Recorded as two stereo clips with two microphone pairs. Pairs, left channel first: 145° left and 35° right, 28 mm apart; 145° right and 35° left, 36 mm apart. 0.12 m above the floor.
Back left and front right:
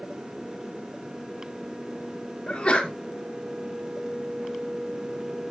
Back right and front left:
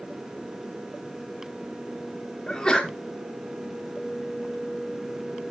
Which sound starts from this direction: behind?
A sneeze, at 2.5 s.